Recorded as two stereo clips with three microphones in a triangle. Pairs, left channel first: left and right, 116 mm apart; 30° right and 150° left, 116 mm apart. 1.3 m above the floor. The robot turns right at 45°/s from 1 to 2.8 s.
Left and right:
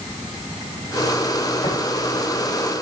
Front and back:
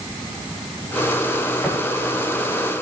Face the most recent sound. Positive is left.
turn(degrees=110)